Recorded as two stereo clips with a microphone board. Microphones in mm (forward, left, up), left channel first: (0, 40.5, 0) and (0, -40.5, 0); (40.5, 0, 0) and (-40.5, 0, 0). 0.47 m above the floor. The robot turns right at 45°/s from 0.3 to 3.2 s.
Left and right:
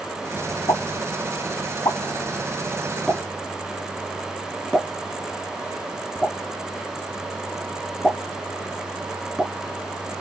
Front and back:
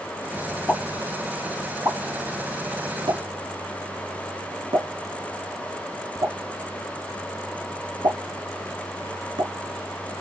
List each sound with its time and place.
0.7 s a pop: 65° left, 1.3 m; by 9.5 s straight behind, 1.3 m